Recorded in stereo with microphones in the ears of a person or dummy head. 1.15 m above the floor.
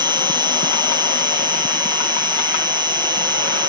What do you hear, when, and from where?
0.0 s an insect: 15° right (ahead or behind)